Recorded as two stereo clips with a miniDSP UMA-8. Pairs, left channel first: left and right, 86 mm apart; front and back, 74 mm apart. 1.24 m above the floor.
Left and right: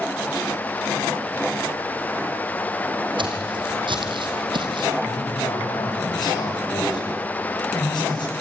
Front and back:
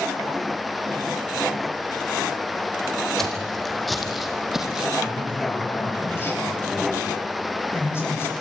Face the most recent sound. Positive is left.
turn(degrees=60)